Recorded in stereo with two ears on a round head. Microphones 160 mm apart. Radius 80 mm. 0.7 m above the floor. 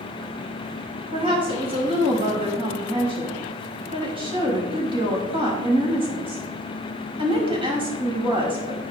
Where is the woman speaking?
30° right (ahead or behind), 5 m.